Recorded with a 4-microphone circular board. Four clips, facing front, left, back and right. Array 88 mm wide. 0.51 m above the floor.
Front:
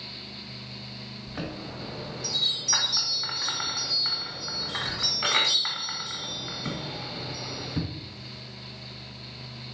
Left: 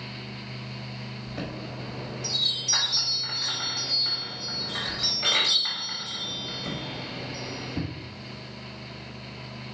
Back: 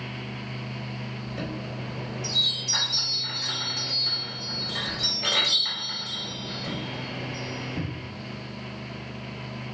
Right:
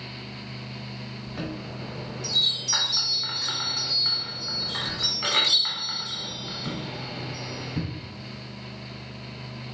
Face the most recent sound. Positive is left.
turn(degrees=-15)